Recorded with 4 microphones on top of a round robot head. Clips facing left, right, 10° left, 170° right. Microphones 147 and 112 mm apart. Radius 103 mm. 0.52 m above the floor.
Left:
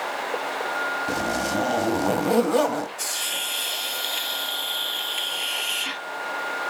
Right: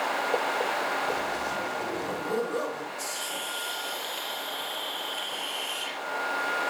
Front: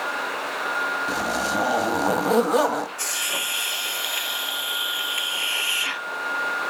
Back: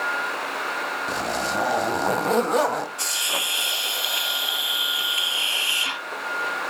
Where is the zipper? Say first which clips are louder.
Left 5 dB, even; 95° left, 0.9 m.